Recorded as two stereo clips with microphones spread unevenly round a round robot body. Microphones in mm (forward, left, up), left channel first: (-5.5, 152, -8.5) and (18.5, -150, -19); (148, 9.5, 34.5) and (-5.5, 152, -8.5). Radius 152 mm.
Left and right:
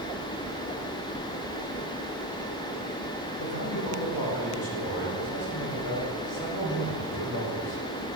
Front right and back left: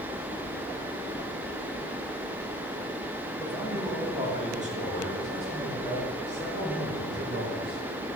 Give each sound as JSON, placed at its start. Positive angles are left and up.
{"t": 3.4, "sound": "a man speaking", "azimuth_deg": 65, "distance_m": 1.4}